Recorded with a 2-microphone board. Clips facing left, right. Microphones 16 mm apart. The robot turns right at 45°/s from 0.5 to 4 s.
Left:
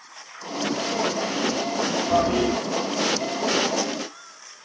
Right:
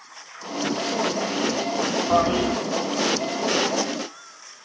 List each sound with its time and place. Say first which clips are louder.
2.1 s a toilet flushing: right 1 dB; 45° right (ahead or behind), 1.1 m; by 2.6 s 35° right (ahead or behind), 1.1 m